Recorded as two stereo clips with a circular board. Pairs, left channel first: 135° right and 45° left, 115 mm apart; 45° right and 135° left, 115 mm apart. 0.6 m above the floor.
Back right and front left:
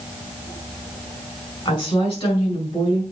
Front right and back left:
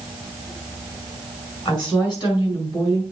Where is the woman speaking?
95° right, 4.5 m; by 3.0 s 100° right, 6 m.